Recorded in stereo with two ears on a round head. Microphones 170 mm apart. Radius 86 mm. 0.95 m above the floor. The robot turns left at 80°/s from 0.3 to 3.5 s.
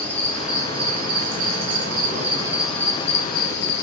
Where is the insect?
10° left, 1.2 m; by 3.8 s 115° left, 1.2 m.